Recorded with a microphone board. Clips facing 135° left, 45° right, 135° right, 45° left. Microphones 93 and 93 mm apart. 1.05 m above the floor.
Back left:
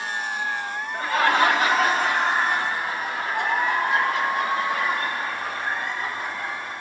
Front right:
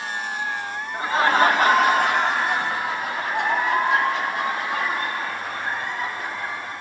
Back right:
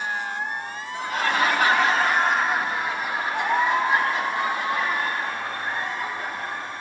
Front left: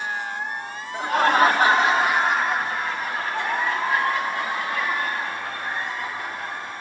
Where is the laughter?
25° left, 1.1 m; by 6.7 s 75° right, 5 m.